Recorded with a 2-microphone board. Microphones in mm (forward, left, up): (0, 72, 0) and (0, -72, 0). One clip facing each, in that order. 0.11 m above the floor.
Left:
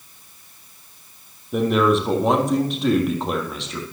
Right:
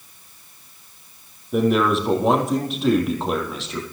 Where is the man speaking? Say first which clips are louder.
Even; centre (ahead or behind), 4 m.